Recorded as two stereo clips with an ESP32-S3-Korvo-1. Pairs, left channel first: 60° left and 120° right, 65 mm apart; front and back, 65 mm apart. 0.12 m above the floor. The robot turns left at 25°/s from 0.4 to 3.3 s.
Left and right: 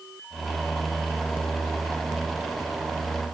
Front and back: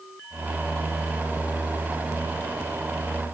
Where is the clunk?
No clunk in this recording.